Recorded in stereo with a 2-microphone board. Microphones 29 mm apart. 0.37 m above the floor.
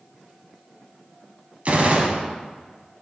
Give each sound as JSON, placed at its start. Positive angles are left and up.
{"t": 1.6, "sound": "a gunshot", "side_deg": -50, "distance_m": 1.6}